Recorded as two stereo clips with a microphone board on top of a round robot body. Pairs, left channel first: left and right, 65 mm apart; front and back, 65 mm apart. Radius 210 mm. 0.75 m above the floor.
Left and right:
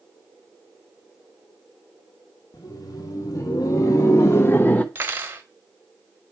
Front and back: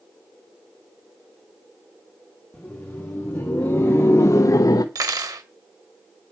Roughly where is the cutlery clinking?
Behind right.